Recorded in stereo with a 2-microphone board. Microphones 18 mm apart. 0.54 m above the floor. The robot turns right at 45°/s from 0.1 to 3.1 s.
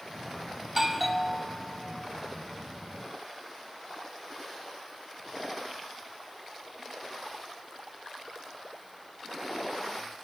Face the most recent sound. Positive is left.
turn(degrees=75)